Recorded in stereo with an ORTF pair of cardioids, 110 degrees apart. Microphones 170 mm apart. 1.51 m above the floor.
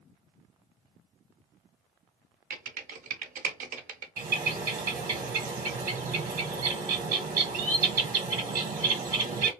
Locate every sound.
2.5 s typing on a keyboard: 50° right, 0.8 m
4.2 s a bird: 50° right, 1.1 m